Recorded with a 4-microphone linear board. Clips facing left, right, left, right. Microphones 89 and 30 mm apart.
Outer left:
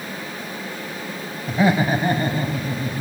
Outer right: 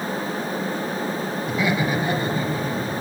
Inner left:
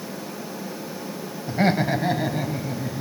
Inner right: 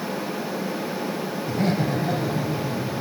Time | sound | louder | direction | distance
1.5 | laughter | outer left 5 dB, inner left 4 dB | 35° left (ahead or behind) | 2 m